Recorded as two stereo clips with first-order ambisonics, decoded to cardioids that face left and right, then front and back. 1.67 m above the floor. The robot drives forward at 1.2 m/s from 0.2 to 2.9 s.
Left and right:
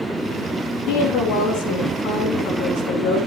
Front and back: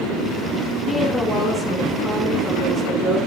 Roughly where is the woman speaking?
Left.